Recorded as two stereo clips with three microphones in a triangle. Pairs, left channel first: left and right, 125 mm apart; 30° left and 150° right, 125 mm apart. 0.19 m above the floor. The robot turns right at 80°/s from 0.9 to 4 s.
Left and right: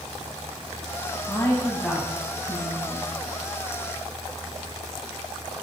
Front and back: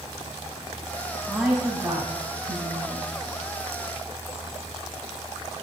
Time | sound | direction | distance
1.3 | a woman speaking | 120° left | 1.1 m